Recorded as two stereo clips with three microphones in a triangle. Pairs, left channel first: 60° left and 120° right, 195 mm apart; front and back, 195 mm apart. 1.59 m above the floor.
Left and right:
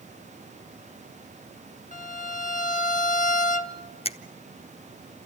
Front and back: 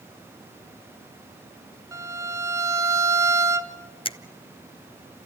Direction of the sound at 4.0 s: 35° left.